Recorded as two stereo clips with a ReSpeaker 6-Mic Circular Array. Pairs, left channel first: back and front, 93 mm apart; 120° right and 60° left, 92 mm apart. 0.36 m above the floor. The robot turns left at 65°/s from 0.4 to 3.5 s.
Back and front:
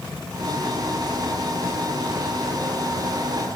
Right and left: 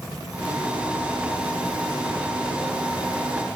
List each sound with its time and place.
Only background noise.